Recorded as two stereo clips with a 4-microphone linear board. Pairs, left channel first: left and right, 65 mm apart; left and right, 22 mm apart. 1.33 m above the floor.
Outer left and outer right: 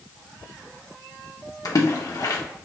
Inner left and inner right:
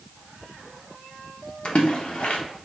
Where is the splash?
65° left (ahead or behind), 1.0 m.